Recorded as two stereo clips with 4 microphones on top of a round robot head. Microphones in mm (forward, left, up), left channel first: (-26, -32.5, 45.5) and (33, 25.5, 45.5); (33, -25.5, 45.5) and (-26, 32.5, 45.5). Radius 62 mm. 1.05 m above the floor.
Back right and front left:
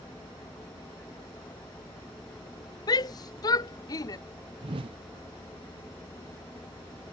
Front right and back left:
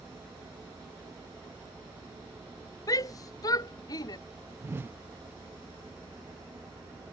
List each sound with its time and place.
2.9 s a shout: 95° right; by 4.2 s 90° right
4.6 s a whoosh: 70° left